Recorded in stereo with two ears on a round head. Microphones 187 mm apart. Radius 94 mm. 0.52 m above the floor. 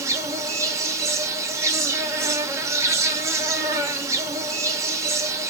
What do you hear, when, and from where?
0.0 s an insect: 15° right (ahead or behind), 0.7 m